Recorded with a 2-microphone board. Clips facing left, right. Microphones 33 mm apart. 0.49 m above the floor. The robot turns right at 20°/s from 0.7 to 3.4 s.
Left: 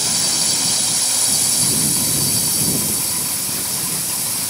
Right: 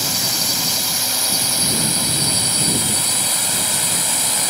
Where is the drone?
170° right; by 4.5 s 115° right.